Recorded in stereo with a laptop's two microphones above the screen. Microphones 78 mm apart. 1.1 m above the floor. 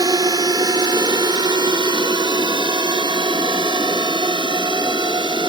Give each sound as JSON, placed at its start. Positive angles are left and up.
{"t": 0.0, "sound": "a drone", "side_deg": -60}